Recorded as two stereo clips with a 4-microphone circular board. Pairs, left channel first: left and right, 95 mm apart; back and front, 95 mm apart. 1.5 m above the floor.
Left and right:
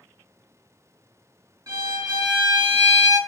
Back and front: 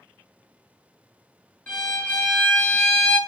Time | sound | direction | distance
1.7 | a violin | 105° right | 1.5 m